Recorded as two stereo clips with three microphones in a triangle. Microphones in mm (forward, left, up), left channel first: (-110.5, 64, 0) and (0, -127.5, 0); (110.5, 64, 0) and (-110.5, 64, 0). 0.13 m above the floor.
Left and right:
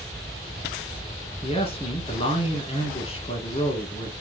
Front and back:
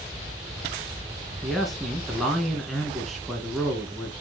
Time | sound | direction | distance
1.4 | a man speaking | 90° left | 1.7 m